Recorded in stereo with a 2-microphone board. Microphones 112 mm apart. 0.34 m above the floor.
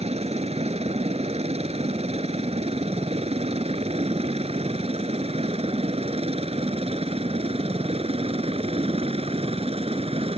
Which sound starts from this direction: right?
A helicopter, at 0.0 s.